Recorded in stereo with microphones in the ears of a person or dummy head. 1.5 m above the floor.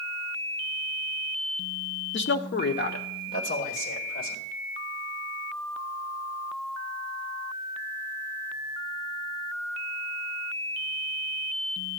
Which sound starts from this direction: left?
A man speaking, at 2.1 s.